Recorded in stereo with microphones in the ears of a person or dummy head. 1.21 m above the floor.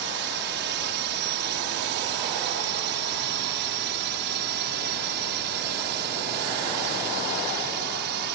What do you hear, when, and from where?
0.0 s a drone: 60° right (ahead or behind)